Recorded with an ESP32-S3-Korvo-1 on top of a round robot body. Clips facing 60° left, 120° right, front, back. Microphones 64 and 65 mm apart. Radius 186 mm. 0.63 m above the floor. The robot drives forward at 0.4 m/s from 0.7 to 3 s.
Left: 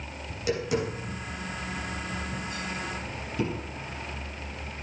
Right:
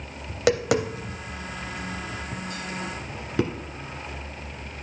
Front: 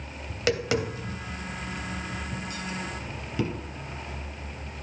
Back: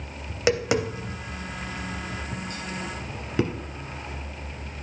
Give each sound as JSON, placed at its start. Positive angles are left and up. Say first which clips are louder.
{"t": 0.3, "sound": "tapping", "louder": "right 6 dB, back 3 dB", "azimuth_deg": -110, "distance_m": 1.0}